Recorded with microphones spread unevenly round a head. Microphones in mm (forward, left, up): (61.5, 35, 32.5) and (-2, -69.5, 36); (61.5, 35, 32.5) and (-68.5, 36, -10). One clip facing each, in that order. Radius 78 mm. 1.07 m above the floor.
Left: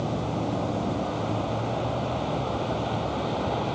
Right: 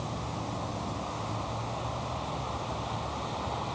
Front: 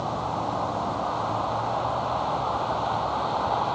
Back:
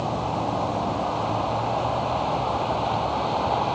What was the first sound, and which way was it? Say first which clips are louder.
A vehicle: left 8 dB, back 2 dB; 105° left.